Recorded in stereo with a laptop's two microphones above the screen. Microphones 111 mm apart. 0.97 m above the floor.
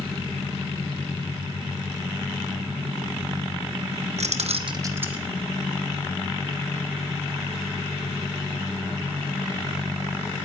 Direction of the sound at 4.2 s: 85° right.